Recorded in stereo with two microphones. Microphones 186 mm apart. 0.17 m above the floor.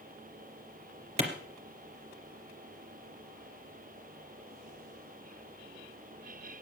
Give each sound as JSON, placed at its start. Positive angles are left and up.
{"t": 1.2, "sound": "a clap", "side_deg": -35, "distance_m": 2.5}